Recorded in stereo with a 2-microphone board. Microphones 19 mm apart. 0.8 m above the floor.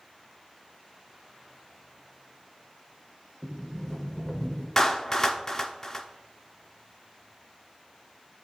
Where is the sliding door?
40° left (ahead or behind), 1.6 m.